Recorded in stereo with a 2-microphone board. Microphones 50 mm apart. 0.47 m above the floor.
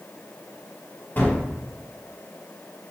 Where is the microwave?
No microwave in this recording.